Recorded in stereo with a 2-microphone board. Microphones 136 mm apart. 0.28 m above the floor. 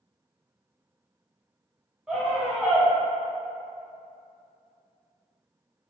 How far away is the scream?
About 1.0 m.